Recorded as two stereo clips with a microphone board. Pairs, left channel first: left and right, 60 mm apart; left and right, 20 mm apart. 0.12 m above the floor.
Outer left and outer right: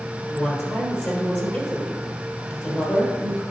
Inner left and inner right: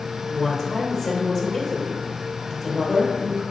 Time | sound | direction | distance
0.2 | a woman speaking | 30° left (ahead or behind) | 3 m